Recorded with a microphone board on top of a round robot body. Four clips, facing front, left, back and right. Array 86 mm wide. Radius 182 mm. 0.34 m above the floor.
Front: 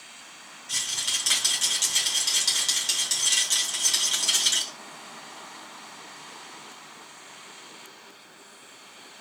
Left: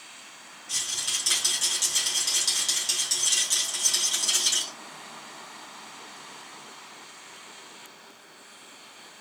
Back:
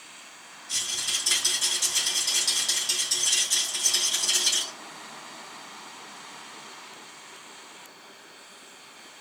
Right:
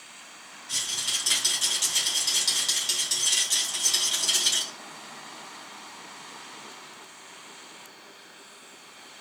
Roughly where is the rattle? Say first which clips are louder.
Right 1 dB, front 1 dB; ahead.